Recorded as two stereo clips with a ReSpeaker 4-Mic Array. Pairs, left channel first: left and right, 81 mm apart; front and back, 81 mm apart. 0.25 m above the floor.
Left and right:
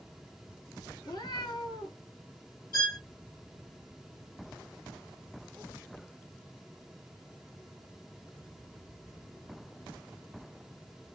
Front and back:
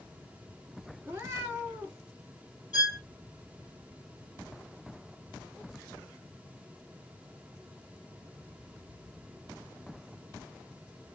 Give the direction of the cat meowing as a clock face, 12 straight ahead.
8 o'clock.